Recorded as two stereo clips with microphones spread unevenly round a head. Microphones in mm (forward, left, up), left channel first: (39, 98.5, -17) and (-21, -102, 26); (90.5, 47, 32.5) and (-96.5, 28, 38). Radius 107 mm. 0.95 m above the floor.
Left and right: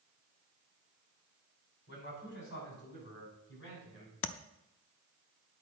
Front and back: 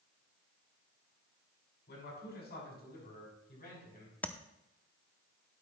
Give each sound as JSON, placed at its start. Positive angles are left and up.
{"t": 1.9, "sound": "a man speaking", "azimuth_deg": 40, "distance_m": 5.5}
{"t": 4.2, "sound": "tapping", "azimuth_deg": 85, "distance_m": 0.5}